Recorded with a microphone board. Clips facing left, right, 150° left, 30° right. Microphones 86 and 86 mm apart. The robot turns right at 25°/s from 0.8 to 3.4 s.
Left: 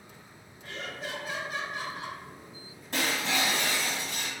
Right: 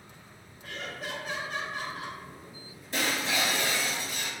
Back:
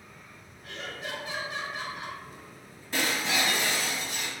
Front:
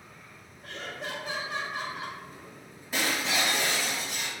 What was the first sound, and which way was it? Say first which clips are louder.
Laughter: even, front 1 dB; 10° right.